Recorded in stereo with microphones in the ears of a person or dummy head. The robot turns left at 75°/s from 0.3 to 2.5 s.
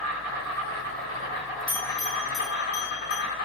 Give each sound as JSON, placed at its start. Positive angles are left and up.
{"t": 0.0, "sound": "an insect", "azimuth_deg": -75, "distance_m": 1.3}
{"t": 1.7, "sound": "a bell", "side_deg": 10, "distance_m": 1.4}